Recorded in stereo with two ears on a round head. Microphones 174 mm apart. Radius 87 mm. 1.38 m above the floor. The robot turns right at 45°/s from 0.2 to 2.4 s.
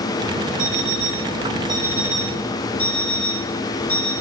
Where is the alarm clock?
75° right, 5.5 m; by 4.1 s 10° left, 5.5 m.